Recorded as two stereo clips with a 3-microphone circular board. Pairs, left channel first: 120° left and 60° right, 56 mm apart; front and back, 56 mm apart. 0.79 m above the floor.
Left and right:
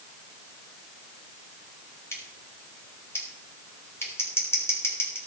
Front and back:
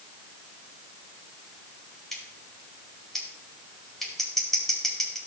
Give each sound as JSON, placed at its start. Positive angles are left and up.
{"t": 2.1, "sound": "scissors", "azimuth_deg": 85, "distance_m": 4.5}